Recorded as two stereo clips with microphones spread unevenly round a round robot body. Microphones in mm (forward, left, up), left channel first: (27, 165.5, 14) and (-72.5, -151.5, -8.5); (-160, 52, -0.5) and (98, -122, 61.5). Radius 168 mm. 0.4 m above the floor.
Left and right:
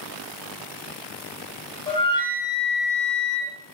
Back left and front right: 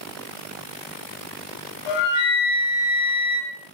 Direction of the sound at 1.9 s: 145° left.